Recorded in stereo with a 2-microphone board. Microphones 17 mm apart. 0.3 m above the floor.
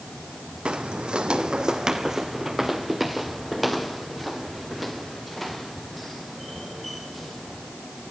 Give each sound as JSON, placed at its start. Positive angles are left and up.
{"t": 0.7, "sound": "footsteps", "side_deg": -65, "distance_m": 1.2}